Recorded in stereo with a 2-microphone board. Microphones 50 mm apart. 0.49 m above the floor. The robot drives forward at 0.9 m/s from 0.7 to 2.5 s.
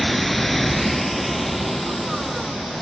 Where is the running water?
5° left (ahead or behind), 0.8 m; by 2.8 s centre (ahead or behind), 2.5 m.